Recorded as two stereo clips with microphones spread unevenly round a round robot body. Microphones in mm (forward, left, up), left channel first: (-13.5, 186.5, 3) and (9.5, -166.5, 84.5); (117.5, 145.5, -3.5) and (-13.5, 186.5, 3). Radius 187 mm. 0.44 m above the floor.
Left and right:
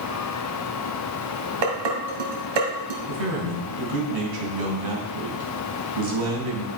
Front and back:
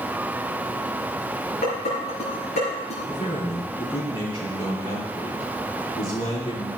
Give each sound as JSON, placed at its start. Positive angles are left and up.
{"t": 1.6, "sound": "dishes clattering", "azimuth_deg": -70, "distance_m": 2.5}
{"t": 3.1, "sound": "a man speaking", "azimuth_deg": -95, "distance_m": 4.0}